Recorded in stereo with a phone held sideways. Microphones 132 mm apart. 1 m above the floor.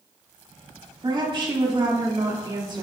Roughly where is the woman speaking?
Right.